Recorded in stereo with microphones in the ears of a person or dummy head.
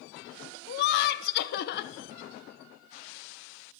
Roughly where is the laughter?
Left.